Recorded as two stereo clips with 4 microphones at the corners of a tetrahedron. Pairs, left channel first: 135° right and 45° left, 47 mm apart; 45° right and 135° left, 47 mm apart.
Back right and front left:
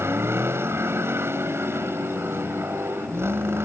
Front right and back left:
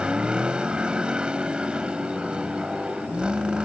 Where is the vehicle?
70° left.